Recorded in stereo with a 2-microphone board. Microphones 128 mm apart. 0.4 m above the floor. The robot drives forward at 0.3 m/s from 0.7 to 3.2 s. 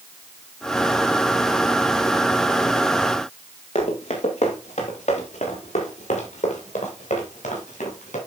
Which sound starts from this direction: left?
Running footsteps, at 3.8 s.